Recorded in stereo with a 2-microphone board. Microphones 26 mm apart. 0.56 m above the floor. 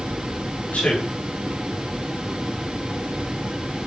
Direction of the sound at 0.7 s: 65° left (ahead or behind).